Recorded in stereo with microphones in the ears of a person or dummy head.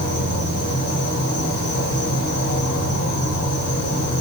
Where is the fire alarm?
I don't hear a fire alarm.